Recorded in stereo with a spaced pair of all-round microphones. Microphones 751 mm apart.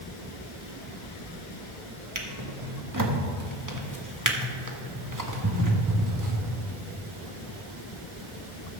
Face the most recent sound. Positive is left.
turn(degrees=-25)  # may be behind; listen again after turning